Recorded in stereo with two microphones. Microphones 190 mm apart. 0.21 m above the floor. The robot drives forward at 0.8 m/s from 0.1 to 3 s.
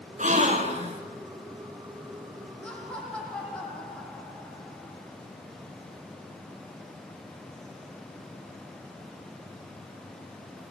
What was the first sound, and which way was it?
A gasp, 40° right (ahead or behind).